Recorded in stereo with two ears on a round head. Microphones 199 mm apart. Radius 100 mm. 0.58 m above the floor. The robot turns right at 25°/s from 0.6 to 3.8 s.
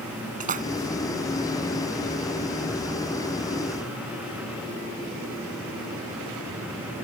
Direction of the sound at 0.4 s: 40° right (ahead or behind).